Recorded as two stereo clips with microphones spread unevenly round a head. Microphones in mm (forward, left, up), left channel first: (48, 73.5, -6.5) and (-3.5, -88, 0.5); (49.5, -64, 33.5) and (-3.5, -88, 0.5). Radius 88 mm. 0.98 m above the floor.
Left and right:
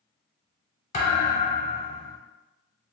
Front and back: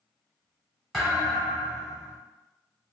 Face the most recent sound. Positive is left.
turn(degrees=55)